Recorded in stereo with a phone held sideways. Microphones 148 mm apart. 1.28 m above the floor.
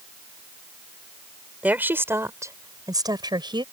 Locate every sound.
1.6 s a woman speaking: 10° right (ahead or behind); by 3.6 s 30° right (ahead or behind)